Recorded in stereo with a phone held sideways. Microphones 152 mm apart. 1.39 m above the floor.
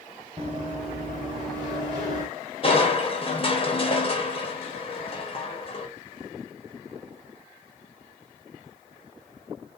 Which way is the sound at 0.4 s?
35° right (ahead or behind).